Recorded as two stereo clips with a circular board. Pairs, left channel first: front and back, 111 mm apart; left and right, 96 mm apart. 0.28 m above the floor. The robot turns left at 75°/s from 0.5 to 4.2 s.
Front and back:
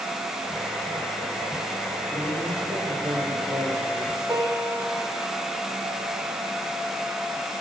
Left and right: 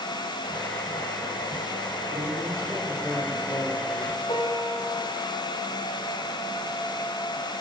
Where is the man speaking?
115° right, 7 m; by 4.2 s 90° left, 7 m.